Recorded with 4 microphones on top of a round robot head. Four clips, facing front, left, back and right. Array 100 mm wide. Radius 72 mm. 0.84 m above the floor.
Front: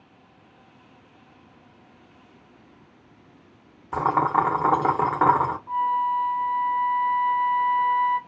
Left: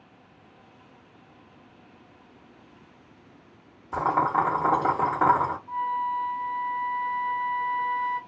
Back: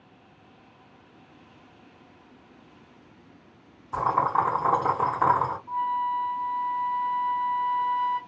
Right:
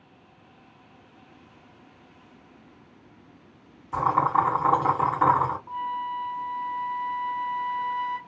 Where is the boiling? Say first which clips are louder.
Right 1 dB, front 2 dB; 20° left, 1.1 m.